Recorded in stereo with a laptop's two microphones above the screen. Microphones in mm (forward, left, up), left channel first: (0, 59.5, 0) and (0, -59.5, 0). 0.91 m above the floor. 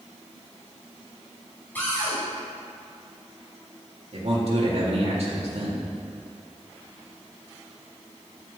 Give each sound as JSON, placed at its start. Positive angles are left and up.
{"t": 1.8, "sound": "a cupboard door", "side_deg": 15, "distance_m": 2.5}
{"t": 4.1, "sound": "a man speaking", "side_deg": -60, "distance_m": 2.0}